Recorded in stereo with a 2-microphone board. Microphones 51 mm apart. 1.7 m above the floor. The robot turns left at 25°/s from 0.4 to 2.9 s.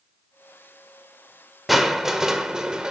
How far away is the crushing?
About 1.4 m.